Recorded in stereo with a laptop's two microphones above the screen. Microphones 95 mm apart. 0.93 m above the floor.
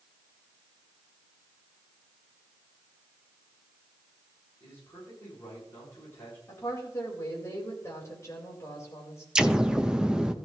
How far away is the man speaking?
About 8 m.